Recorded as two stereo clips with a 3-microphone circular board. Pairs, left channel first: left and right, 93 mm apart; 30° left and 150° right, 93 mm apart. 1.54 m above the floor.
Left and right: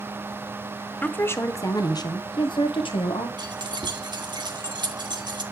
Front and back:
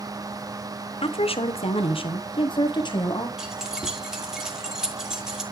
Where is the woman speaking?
15° left, 0.9 m; by 3.3 s 70° left, 1.5 m.